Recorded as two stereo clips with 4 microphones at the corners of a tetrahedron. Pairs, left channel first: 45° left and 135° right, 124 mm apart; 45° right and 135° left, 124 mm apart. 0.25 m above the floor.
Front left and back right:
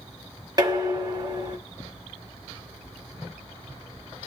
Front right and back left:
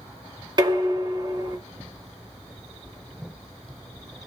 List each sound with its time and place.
0.6 s dishes clattering: 175° left, 1.2 m